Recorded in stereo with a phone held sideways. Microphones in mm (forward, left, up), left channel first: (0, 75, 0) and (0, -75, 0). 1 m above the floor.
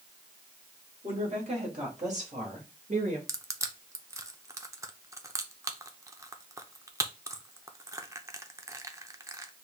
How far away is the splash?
I don't hear a splash.